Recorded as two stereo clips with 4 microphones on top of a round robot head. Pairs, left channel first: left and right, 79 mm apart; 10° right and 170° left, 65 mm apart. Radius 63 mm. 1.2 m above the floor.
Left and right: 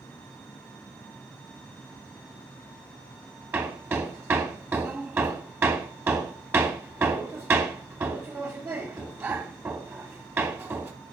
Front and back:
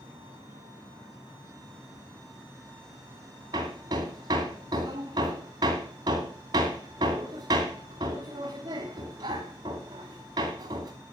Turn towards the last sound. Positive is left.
turn(degrees=-150)